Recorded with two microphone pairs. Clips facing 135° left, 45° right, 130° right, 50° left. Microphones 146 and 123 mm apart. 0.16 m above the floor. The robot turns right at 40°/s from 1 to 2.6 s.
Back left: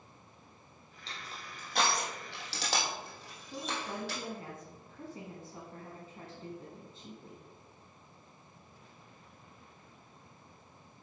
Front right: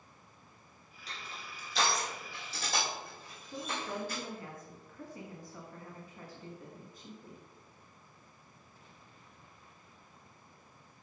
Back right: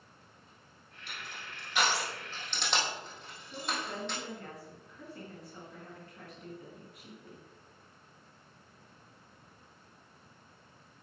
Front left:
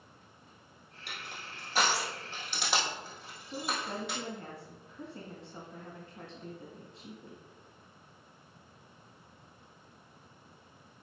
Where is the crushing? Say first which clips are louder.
Even, front left 1 dB; 70° left, 3 m; by 4.2 s 135° left, 3 m.